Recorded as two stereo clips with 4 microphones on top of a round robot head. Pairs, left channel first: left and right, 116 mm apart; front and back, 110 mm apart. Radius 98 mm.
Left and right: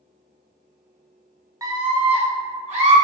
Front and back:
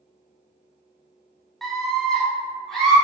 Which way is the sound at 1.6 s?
85° right.